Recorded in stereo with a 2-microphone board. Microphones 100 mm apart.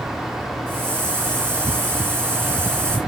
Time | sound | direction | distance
0.7 | a hiss | 25° right (ahead or behind) | 2.5 m